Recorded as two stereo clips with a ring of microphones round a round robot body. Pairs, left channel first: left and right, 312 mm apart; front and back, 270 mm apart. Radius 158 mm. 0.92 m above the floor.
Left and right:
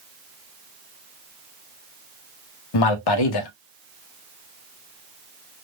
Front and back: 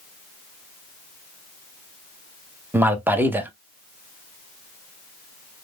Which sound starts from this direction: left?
A man speaking, at 2.7 s.